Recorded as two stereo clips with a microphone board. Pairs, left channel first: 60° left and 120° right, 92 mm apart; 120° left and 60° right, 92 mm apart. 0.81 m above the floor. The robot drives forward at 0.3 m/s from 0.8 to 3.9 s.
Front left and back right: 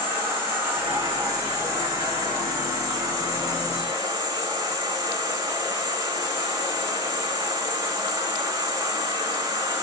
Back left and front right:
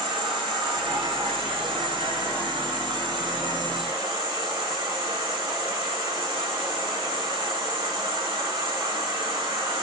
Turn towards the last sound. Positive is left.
turn(degrees=-85)